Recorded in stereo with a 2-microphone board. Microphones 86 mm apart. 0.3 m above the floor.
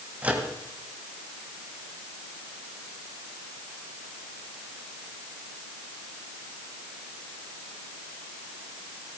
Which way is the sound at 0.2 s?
15° right (ahead or behind).